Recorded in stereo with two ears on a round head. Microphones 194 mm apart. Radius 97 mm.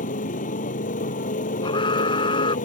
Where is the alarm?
25° left (ahead or behind).